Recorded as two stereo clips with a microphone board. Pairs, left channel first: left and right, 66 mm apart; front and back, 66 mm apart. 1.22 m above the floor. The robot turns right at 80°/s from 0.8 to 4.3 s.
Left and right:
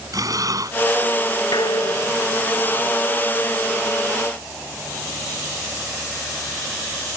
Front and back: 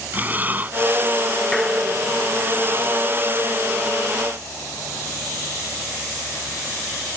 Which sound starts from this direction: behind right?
Breathing, at 0.1 s.